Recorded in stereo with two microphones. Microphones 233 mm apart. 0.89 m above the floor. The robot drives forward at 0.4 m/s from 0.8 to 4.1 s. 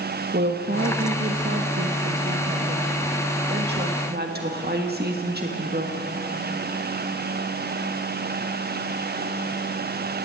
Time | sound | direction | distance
0.3 | a woman speaking | 55° right (ahead or behind) | 1.4 m